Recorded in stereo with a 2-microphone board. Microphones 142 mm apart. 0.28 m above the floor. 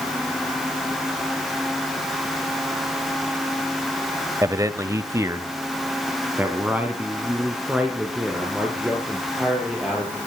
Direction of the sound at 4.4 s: 20° right (ahead or behind).